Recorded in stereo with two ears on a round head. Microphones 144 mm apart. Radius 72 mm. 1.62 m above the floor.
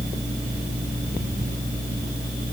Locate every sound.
Only background noise.